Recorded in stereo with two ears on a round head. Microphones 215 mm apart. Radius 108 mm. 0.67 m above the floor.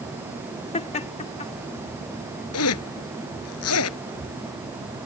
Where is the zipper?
70° left (ahead or behind).